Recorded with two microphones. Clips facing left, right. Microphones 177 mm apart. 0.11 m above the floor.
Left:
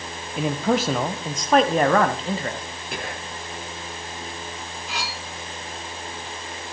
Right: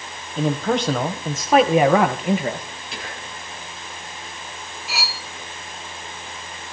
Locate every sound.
0.4 s a man speaking: 10° left (ahead or behind), 2.5 m; by 2.6 s 20° right (ahead or behind), 2.0 m
2.9 s whispering: 55° left (ahead or behind), 3 m
4.9 s cutlery clinking: 5° right (ahead or behind), 1.8 m